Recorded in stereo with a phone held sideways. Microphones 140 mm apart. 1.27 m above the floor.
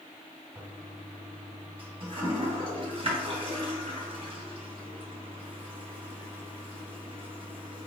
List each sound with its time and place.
0.6 s a toilet flushing: 40° right (ahead or behind), 2 m